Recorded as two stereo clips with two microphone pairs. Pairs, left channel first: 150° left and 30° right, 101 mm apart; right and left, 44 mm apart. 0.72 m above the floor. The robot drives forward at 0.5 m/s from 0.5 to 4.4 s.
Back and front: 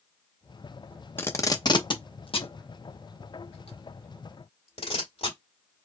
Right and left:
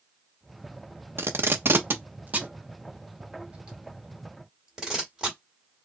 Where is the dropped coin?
I don't hear a dropped coin.